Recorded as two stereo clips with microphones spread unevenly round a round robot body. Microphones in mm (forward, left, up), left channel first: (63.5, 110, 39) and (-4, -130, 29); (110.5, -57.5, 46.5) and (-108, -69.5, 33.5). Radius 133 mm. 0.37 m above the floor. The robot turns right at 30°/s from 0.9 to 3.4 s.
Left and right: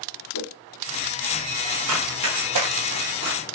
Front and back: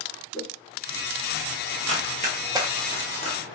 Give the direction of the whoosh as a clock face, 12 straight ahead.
9 o'clock.